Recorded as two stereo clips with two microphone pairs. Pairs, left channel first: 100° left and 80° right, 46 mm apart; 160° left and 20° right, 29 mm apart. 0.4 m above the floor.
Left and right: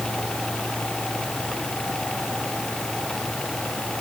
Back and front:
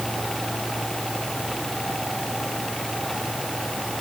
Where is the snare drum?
I don't hear a snare drum.